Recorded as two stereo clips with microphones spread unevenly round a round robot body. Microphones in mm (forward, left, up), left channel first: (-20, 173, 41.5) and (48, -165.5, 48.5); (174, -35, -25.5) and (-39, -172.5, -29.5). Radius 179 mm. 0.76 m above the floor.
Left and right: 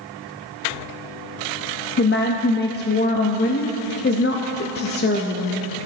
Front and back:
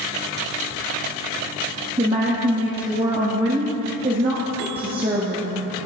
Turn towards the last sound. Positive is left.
turn(degrees=150)